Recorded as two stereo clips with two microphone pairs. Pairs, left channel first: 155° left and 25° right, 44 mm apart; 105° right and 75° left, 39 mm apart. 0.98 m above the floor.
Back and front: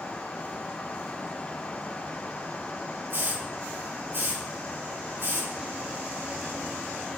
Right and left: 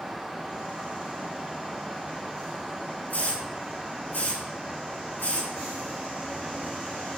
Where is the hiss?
65° right, 5.5 m.